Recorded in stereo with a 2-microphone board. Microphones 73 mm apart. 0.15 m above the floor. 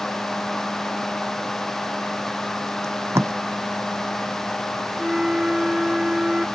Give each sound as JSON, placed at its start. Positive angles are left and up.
{"t": 2.8, "sound": "tape being pulled", "side_deg": -40}
{"t": 5.0, "sound": "a flute", "side_deg": -10}